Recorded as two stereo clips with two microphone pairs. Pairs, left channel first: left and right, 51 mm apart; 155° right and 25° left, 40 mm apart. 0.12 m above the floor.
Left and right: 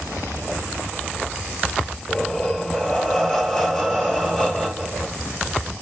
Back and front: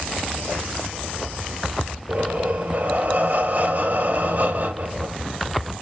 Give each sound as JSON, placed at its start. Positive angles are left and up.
{"t": 2.1, "sound": "breathing", "azimuth_deg": 10, "distance_m": 2.5}